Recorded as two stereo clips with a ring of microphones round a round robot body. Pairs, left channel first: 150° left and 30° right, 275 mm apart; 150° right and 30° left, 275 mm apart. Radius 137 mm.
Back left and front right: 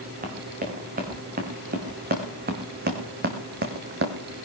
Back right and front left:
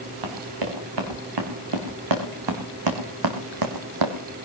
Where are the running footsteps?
30° left, 4 m; by 4.2 s 25° left, 1.7 m.